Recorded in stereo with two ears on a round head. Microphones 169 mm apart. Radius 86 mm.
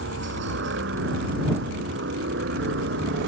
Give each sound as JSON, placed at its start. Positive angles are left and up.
{"t": 0.0, "sound": "a helicopter", "side_deg": -70}